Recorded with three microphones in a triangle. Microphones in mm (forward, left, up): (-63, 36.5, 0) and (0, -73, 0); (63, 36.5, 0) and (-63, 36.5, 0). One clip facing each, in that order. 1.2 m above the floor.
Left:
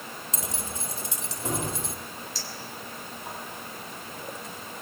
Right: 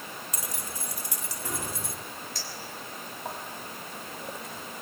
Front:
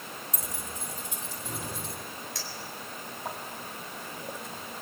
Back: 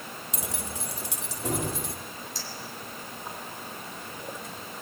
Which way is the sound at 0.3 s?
175° right.